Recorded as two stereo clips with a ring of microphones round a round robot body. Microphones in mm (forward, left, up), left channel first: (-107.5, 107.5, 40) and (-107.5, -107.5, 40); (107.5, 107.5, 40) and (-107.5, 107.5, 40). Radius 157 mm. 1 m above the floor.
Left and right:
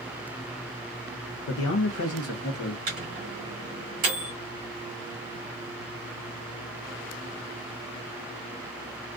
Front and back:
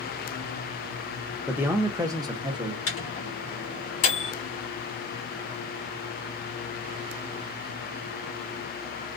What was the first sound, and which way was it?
A man speaking, 95° left.